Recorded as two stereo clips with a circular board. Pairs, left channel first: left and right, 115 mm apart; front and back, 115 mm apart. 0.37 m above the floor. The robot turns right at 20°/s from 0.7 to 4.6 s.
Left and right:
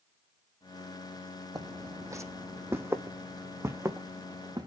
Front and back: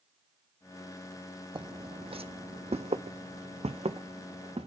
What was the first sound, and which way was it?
Footsteps, 140° right.